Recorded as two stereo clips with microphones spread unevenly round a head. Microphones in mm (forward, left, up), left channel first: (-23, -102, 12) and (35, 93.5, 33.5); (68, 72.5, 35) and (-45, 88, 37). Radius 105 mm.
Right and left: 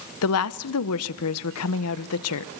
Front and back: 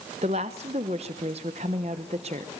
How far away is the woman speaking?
About 0.9 m.